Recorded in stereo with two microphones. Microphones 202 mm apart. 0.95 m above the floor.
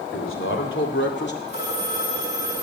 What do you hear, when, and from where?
0.1 s a man speaking: 80° left, 3 m; by 1.4 s 55° left (ahead or behind), 2 m
1.5 s a phone ringing: 55° left (ahead or behind), 9 m